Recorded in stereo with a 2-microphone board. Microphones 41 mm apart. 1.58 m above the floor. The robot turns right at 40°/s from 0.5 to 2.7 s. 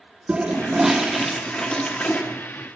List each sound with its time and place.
0.3 s a toilet flushing: 25° right, 1.4 m; by 2.2 s 40° left, 1.4 m